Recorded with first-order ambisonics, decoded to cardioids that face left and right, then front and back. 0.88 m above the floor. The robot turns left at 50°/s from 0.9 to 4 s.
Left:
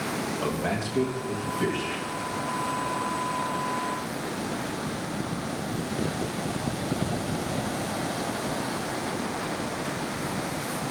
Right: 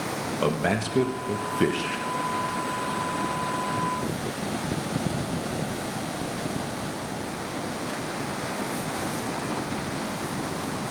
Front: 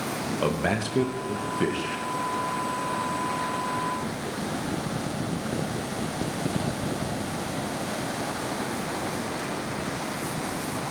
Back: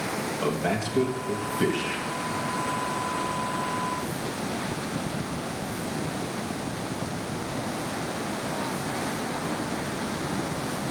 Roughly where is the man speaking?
Ahead right.